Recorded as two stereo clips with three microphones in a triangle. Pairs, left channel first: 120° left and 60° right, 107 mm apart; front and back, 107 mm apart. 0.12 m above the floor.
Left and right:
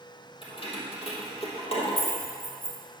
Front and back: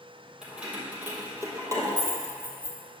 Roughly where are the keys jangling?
Left.